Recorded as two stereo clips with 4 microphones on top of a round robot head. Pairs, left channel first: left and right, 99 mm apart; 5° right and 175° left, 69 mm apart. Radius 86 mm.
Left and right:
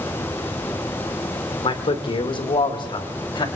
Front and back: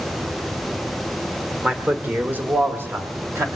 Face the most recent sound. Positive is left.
turn(degrees=125)